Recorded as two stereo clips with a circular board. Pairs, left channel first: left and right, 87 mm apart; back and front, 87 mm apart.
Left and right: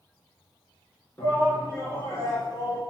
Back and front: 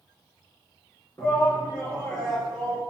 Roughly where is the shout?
Behind left.